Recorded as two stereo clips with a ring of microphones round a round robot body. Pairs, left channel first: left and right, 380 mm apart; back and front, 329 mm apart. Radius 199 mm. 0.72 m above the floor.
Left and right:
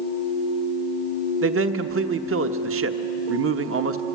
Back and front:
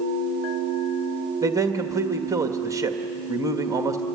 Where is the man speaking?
75° right, 1.2 m.